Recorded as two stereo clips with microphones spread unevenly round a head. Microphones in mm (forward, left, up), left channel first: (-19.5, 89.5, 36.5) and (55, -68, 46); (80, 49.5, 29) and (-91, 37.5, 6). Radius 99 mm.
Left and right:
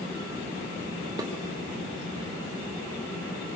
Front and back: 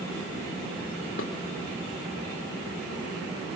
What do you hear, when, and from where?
1.2 s dishes clattering: 5° left, 2.5 m